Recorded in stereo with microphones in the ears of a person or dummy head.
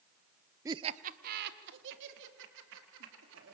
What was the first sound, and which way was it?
Laughter, 15° right (ahead or behind).